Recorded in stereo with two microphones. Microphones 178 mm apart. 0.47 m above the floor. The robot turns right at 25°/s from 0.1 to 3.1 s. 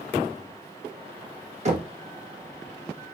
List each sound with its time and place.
1.6 s knocking: 40° right (ahead or behind), 0.8 m; by 1.9 s 35° right (ahead or behind), 0.8 m